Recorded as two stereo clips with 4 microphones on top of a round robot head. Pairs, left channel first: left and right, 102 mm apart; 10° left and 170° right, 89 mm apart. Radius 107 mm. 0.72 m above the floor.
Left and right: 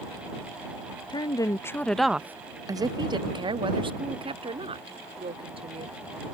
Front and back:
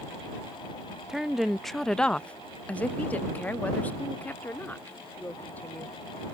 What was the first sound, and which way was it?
A woman speaking, 110° left.